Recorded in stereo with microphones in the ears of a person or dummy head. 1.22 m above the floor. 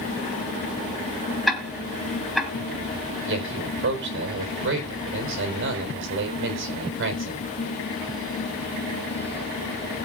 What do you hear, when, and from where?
1.5 s ticking: centre (ahead or behind), 3 m
3.3 s a man speaking: 70° right (ahead or behind), 4 m